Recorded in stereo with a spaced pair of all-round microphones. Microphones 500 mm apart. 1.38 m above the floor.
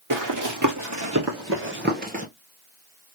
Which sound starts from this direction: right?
Running footsteps, at 0.1 s.